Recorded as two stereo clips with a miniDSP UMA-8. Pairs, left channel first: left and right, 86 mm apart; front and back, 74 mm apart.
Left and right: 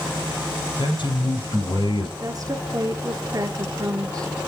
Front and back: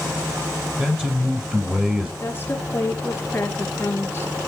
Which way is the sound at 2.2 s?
55° right.